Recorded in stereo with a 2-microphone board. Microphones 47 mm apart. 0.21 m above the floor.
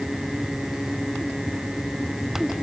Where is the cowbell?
I don't hear a cowbell.